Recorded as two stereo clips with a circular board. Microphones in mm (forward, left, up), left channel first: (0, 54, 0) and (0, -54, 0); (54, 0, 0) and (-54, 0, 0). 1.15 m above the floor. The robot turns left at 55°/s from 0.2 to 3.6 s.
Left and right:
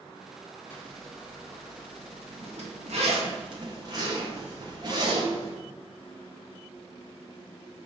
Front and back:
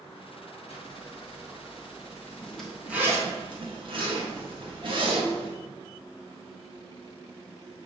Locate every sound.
0.7 s a zipper: 20° left, 1.1 m; by 5.5 s 140° right, 1.1 m